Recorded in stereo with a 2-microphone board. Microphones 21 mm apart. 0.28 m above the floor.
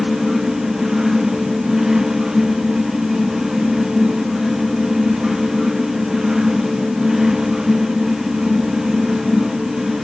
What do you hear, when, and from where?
Only background noise.